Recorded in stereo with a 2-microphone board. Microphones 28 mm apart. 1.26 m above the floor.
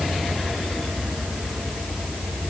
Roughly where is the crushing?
No crushing in this recording.